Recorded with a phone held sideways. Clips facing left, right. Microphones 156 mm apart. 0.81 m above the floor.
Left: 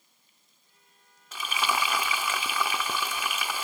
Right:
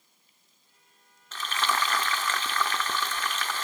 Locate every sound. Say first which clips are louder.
1.3 s frying: even; 10° left (ahead or behind)